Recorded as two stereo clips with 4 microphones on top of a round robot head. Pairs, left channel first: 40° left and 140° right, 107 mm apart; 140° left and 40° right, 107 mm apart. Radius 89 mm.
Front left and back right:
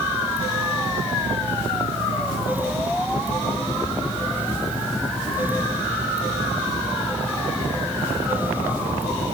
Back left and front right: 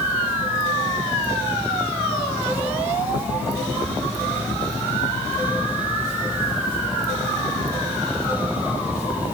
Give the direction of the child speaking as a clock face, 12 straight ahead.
I don't hear a child speaking.